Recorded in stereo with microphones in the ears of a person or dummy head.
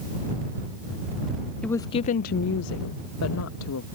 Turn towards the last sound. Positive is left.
turn(degrees=80)